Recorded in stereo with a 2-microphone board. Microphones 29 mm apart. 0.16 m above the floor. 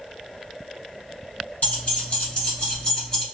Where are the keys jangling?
50° left (ahead or behind), 1.7 m; by 3.2 s 20° left (ahead or behind), 1.3 m.